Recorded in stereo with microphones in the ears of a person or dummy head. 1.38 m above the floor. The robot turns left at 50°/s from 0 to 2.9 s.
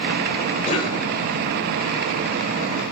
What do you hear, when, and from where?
0.6 s a cough: 40° left (ahead or behind), 1.5 m; by 1.0 s 20° left (ahead or behind), 1.5 m